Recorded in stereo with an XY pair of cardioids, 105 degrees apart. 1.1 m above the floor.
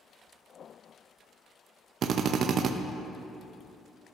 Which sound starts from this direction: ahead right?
A drill, at 2.0 s.